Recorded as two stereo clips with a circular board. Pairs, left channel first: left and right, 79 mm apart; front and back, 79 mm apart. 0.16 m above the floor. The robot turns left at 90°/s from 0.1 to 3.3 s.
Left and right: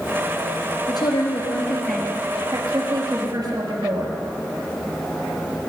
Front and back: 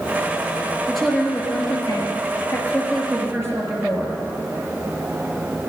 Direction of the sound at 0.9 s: 95° left.